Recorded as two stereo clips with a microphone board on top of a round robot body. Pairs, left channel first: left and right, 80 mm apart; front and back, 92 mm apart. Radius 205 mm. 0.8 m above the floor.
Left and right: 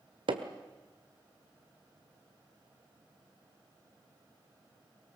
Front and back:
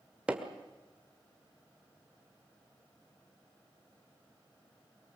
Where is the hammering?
100° right, 1.5 m.